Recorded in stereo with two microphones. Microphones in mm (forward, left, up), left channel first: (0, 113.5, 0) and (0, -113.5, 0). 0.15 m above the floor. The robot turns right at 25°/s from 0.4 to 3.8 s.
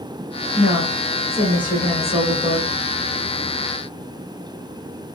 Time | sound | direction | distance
0.6 | a woman speaking | 145° left | 1.3 m